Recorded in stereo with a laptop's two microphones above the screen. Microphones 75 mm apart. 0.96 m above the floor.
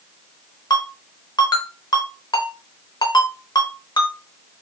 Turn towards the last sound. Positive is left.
turn(degrees=65)  # may be behind; listen again after turning